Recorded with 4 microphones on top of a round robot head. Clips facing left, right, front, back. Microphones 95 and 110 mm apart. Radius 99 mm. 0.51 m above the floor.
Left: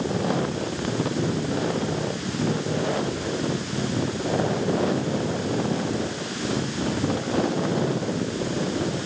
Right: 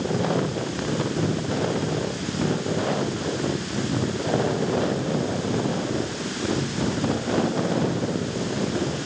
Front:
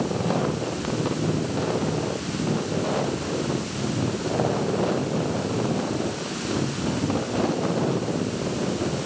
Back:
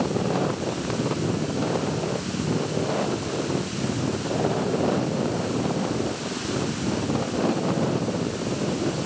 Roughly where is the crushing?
I don't hear crushing.